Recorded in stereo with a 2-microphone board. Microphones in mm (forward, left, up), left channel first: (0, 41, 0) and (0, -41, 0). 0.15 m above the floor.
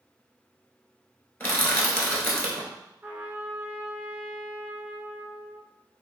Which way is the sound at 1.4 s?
30° left (ahead or behind).